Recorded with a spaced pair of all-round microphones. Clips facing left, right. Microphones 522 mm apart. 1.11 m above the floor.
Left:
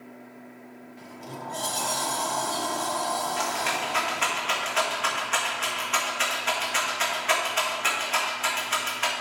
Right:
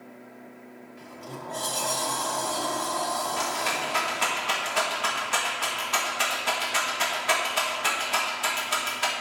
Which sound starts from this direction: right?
A rattle, at 3.4 s.